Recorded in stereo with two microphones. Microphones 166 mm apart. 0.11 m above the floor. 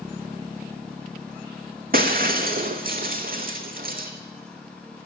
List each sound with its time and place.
1.9 s breaking glass: 65° right (ahead or behind), 1.1 m